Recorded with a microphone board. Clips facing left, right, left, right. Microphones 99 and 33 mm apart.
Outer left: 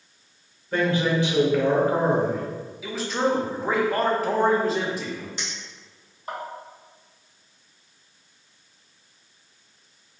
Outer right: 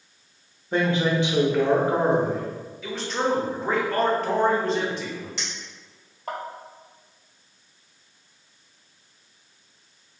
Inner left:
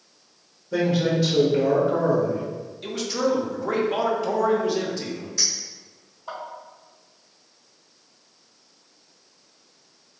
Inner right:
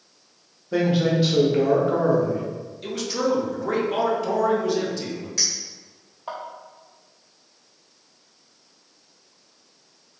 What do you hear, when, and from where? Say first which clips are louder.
0.7 s a man speaking: even, inner right 1 dB; 25° right (ahead or behind), 0.9 m
2.8 s a man speaking: outer left 1 dB, even; 5° left (ahead or behind), 0.7 m
5.4 s a clink: even, even; 85° right, 1.7 m